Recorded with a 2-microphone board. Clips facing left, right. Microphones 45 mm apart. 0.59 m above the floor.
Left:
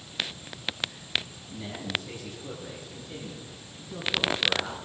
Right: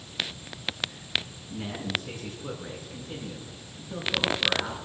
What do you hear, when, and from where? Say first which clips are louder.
1.5 s a man speaking: right 1 dB; 70° right (ahead or behind), 6.5 m; by 4.8 s 45° right (ahead or behind), 9 m